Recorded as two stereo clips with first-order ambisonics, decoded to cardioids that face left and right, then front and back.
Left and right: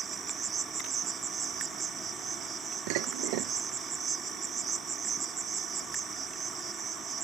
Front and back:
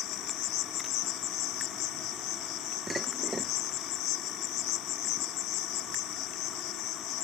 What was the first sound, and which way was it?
An insect, 25° right.